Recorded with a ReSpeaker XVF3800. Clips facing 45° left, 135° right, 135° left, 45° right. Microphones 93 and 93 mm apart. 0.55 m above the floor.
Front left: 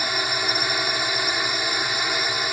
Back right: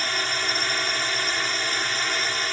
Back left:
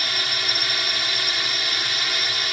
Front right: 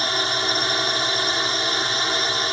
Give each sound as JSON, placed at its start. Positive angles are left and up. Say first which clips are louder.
{"t": 0.0, "sound": "a drone", "louder": "front left 2 dB, front right 5 dB", "azimuth_deg": -25}